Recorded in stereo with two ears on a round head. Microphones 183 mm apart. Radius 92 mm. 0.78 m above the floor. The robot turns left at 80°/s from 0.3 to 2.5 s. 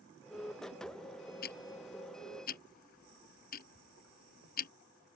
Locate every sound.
1.4 s ticking: 50° left (ahead or behind); by 4.7 s 45° left (ahead or behind)